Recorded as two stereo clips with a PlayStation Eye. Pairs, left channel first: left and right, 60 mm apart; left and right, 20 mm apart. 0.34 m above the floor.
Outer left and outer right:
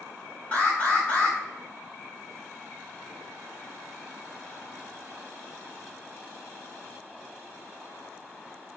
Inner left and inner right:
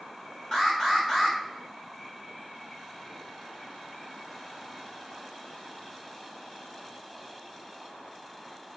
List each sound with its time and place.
0.5 s an alarm: 25° left (ahead or behind), 2.5 m